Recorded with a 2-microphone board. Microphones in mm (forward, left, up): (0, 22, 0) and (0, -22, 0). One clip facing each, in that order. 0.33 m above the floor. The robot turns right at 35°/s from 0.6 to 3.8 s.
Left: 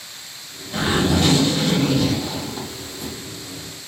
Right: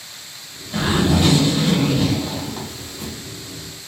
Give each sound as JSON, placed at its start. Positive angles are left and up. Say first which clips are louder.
{"t": 0.7, "sound": "a zipper", "louder": "right 1 dB", "azimuth_deg": 170, "distance_m": 1.1}